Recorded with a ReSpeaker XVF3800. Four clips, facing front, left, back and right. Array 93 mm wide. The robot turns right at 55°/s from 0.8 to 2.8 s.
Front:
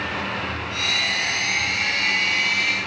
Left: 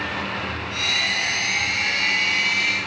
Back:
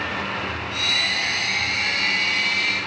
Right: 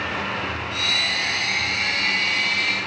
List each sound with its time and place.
Only background noise.